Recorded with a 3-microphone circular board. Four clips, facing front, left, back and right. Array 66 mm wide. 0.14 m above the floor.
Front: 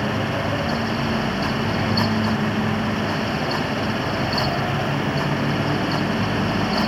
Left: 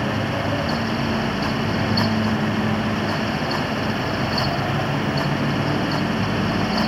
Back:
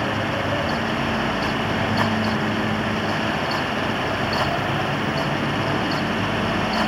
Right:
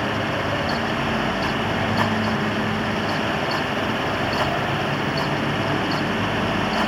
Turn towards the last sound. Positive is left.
No sound to turn to.